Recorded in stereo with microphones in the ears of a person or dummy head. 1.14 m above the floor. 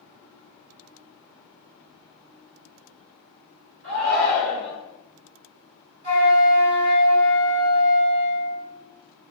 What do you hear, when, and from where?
3.8 s a shout: 60° right (ahead or behind), 1.5 m
6.0 s a flute: 50° right (ahead or behind), 1.3 m